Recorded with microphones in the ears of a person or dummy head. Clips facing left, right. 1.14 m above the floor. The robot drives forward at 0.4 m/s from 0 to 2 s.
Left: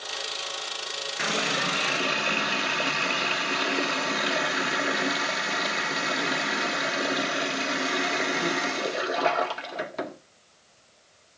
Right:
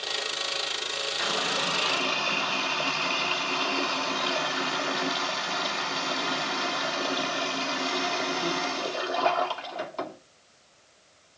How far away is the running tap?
About 0.8 m.